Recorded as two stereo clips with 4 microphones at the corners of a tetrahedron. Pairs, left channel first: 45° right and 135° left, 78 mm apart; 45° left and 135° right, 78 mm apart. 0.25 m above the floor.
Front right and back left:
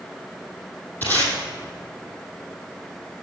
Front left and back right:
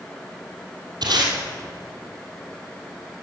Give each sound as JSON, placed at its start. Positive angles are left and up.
{"t": 1.0, "sound": "tape being pulled", "azimuth_deg": -110, "distance_m": 2.5}